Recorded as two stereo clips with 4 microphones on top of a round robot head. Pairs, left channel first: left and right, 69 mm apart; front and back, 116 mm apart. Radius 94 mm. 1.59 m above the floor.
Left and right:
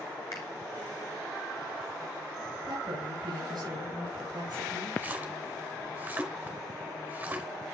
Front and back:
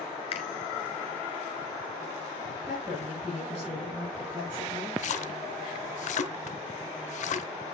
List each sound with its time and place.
0.3 s a finger snap: 35° left, 2 m
2.6 s a woman speaking: 100° right, 4 m
5.0 s a splash: 20° right, 0.8 m